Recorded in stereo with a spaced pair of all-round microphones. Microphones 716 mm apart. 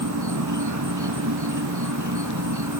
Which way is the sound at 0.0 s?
25° right (ahead or behind).